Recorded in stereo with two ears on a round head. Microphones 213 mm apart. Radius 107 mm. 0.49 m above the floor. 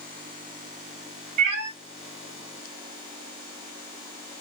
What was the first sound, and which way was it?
A cat meowing, 50° right (ahead or behind).